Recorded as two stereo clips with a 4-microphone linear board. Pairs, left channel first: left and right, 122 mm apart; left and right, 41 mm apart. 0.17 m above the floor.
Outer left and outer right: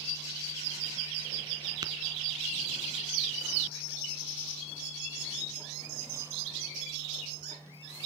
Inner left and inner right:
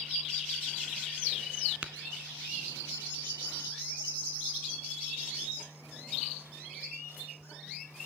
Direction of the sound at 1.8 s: 35° right (ahead or behind).